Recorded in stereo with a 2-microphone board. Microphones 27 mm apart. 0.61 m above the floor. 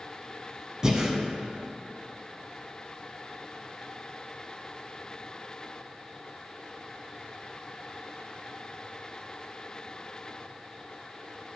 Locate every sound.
0.8 s breathing: 25° right (ahead or behind), 0.9 m